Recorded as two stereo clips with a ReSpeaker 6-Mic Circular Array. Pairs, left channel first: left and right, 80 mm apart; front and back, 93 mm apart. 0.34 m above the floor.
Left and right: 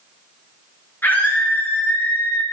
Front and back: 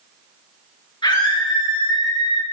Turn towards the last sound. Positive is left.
turn(degrees=25)